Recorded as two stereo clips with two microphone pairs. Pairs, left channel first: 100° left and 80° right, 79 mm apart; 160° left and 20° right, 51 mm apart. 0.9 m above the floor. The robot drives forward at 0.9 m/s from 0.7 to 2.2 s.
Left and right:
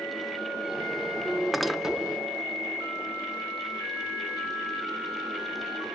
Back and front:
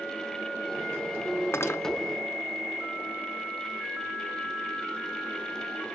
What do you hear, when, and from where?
1.5 s cutlery clinking: 170° right, 0.6 m